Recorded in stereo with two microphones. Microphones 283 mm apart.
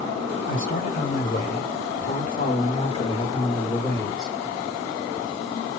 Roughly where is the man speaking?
Left.